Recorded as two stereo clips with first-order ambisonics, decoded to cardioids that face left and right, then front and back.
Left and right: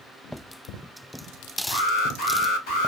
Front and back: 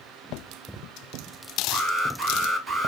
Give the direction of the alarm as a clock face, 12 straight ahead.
9 o'clock.